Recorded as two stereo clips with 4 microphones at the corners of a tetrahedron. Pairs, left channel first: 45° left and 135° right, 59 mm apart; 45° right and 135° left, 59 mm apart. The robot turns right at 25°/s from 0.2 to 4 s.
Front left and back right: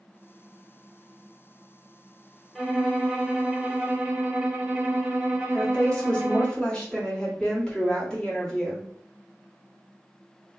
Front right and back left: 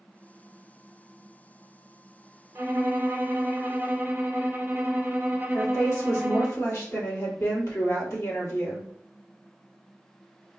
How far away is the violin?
About 0.8 m.